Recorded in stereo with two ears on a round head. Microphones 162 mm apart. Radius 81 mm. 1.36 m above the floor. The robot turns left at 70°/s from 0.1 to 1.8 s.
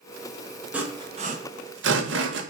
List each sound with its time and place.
0.7 s sawing: 5° right (ahead or behind), 1.1 m; by 2.4 s 75° right (ahead or behind), 1.1 m